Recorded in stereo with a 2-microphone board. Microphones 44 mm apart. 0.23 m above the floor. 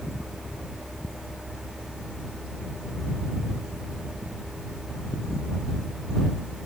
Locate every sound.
Only background noise.